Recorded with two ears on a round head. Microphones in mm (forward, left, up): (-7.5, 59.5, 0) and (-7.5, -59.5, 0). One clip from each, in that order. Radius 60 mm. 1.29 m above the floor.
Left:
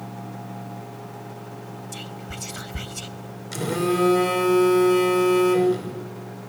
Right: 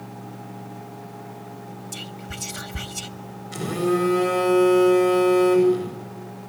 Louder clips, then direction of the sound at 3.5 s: Even; 85° left.